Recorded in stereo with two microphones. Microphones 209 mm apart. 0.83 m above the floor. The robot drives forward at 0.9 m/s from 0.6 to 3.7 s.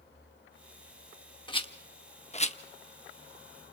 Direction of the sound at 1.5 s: 25° left (ahead or behind).